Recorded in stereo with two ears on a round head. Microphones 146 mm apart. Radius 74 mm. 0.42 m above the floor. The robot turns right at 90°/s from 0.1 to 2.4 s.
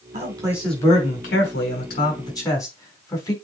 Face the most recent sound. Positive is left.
turn(degrees=20)  # may be behind; listen again after turning